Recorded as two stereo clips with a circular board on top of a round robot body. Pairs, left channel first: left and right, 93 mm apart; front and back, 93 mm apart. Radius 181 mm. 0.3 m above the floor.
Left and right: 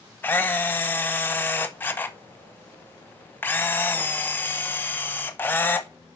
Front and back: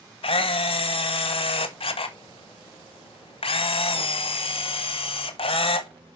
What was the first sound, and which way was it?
A camera shutter, 20° left.